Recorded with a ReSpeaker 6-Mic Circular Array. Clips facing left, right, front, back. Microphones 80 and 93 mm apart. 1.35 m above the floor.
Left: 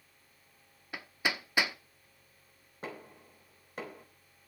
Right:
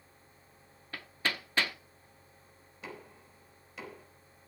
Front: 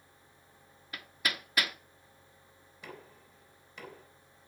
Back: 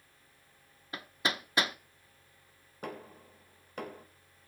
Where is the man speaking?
No man speaking in this recording.